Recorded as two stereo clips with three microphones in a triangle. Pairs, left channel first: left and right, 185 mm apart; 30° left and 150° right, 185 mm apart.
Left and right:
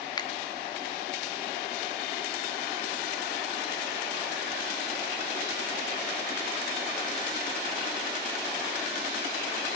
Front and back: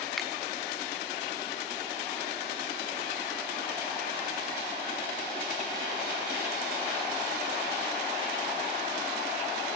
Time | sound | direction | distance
0.2 | a finger snap | 120° left | 0.7 m